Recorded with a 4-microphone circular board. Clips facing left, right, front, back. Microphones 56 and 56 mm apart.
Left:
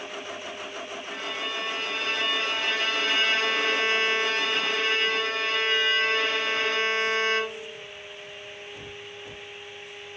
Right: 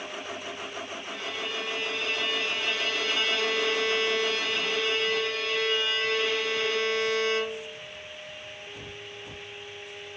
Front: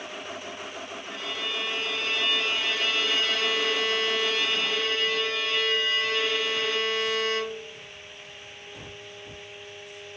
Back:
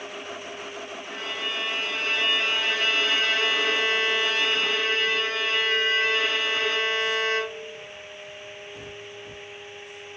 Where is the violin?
125° left, 0.9 m.